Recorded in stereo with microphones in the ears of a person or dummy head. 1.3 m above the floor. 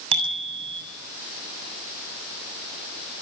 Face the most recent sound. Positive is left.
turn(degrees=-30)  # may be behind; listen again after turning